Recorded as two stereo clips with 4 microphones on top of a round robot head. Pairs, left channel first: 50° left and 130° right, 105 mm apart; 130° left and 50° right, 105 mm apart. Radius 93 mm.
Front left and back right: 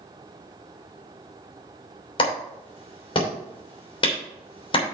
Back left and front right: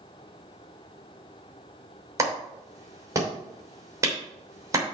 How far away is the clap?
About 3 m.